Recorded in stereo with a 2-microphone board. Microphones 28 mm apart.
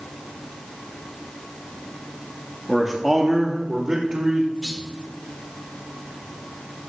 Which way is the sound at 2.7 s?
5° right (ahead or behind).